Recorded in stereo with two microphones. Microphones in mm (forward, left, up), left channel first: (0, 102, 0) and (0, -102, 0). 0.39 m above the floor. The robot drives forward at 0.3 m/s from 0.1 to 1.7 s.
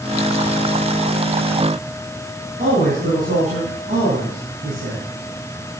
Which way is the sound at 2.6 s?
40° right (ahead or behind).